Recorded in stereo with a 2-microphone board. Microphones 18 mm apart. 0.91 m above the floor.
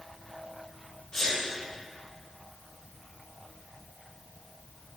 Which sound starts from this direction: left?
A sneeze, at 1.1 s.